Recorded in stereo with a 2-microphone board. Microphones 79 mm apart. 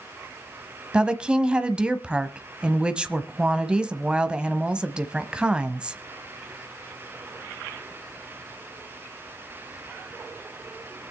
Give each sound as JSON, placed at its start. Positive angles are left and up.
{"t": 0.9, "sound": "a woman speaking", "side_deg": -15, "distance_m": 1.1}